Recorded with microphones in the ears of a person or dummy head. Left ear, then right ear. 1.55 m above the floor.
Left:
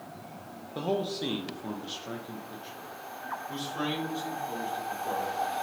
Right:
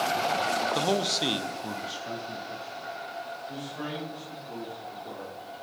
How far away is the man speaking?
About 0.7 m.